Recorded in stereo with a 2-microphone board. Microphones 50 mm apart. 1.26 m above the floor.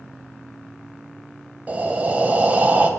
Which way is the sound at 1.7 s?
30° right (ahead or behind).